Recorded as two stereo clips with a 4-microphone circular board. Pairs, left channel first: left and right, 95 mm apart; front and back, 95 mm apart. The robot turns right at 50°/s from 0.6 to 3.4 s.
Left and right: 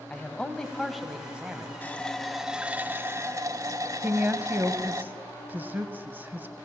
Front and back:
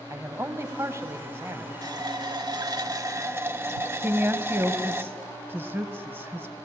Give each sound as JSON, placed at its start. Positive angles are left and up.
{"t": 0.1, "sound": "a man speaking", "azimuth_deg": 165, "distance_m": 1.4}
{"t": 1.8, "sound": "a running tap", "azimuth_deg": 155, "distance_m": 0.9}
{"t": 4.0, "sound": "a woman speaking", "azimuth_deg": -140, "distance_m": 1.0}